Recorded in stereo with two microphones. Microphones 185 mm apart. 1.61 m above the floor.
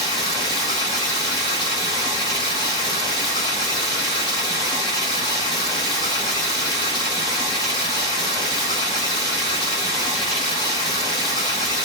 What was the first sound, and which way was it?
Running water, 20° left (ahead or behind).